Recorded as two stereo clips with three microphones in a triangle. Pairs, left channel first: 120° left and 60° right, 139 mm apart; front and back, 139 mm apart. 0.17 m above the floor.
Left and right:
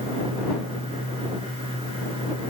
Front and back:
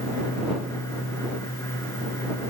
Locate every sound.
Only background noise.